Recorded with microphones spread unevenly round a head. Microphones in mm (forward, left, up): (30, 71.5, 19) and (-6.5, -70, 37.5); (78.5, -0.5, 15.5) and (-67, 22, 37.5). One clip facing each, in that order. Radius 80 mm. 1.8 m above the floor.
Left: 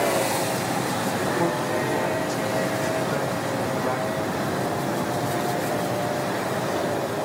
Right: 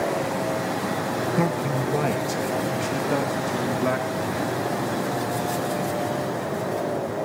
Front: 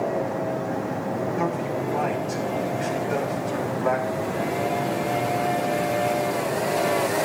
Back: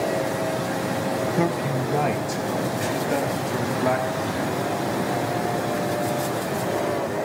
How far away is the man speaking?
About 2.5 m.